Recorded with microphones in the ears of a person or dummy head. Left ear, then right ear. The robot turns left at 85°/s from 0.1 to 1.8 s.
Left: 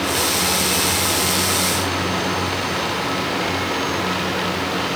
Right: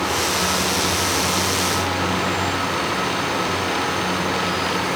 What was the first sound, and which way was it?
Only background noise.